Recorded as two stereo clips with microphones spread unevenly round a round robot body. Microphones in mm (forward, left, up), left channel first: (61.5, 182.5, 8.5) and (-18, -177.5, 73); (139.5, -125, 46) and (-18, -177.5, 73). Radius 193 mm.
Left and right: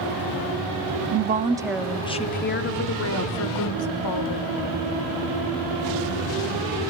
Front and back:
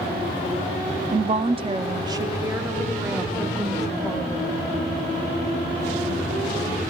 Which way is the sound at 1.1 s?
150° right.